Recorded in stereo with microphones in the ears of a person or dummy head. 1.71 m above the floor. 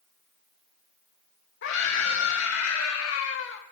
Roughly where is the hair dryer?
I don't hear a hair dryer.